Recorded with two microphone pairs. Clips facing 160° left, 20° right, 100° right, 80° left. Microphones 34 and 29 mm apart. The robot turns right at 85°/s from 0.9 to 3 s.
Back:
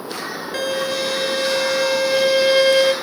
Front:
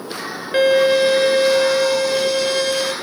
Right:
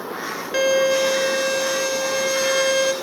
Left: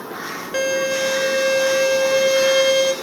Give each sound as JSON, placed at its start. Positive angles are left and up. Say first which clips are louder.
{"t": 0.5, "sound": "a violin", "louder": "front 10 dB, right 3 dB", "azimuth_deg": -15, "distance_m": 1.6}